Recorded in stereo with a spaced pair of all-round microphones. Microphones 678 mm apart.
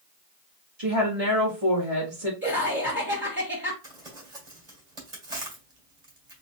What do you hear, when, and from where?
0.8 s a woman speaking: 55° right (ahead or behind), 1.7 m
2.4 s laughter: 15° right (ahead or behind), 1.1 m
3.8 s crumpling: 75° right (ahead or behind), 1.8 m